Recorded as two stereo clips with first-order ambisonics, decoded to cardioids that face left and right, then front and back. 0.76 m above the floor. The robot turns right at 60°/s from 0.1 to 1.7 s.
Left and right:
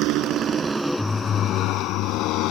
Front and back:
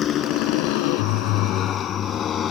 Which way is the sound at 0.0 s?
55° right.